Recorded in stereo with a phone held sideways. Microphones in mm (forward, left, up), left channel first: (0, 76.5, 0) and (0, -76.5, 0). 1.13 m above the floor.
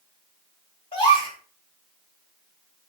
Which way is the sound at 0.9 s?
35° left (ahead or behind).